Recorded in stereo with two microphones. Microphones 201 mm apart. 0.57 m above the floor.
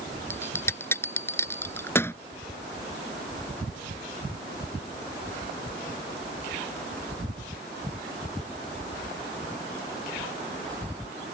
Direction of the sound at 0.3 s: 10° left (ahead or behind).